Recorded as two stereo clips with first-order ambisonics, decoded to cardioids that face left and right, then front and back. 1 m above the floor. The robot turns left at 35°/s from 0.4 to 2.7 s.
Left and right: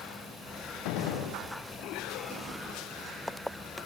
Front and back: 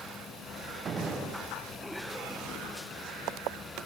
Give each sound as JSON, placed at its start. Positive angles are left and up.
{"t": 0.8, "sound": "a gunshot", "azimuth_deg": 115, "distance_m": 5.5}